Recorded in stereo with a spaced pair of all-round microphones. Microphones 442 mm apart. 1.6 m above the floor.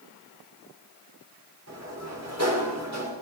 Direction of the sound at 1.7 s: 35° right (ahead or behind).